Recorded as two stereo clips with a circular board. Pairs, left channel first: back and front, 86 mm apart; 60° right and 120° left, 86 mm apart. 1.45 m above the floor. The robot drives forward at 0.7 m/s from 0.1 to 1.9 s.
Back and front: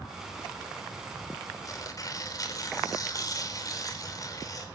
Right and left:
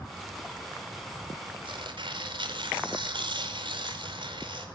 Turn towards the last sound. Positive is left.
turn(degrees=135)